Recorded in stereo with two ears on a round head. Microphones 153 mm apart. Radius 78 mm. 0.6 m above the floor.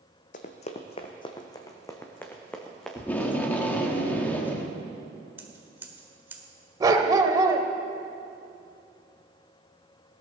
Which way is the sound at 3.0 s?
10° left (ahead or behind).